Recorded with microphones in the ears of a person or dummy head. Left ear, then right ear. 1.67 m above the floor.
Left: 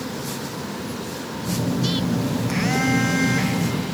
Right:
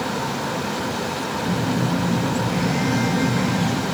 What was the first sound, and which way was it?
A phone buzzing, 35° left (ahead or behind).